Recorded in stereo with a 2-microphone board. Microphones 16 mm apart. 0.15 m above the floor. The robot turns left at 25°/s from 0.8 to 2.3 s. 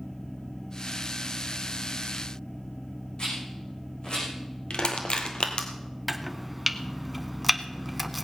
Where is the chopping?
10° right (ahead or behind), 0.8 m.